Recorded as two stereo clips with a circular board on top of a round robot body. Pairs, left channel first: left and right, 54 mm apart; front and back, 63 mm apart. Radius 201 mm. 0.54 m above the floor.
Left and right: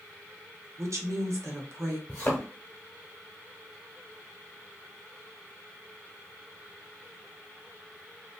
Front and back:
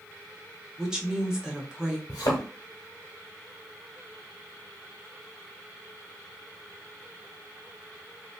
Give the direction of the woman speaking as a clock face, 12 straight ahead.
3 o'clock.